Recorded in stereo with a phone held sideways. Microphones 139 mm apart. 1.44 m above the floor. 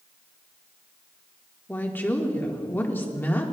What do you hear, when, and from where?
1.7 s a woman speaking: 15° left (ahead or behind), 1.4 m